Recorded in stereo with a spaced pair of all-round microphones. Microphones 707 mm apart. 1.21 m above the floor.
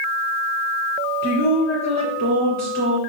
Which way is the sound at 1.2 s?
25° left (ahead or behind).